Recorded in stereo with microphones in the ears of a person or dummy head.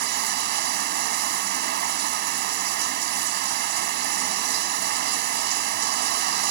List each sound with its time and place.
0.0 s running water: 65° right (ahead or behind)